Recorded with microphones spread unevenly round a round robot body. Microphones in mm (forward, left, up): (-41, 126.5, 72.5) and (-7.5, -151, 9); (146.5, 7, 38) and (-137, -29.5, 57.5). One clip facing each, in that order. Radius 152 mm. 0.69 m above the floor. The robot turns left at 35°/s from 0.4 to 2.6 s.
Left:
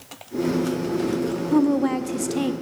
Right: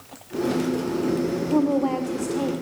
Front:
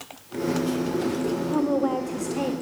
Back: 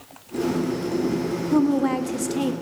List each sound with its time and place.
1.5 s a woman speaking: 165° left, 1.0 m; by 2.5 s 130° left, 1.0 m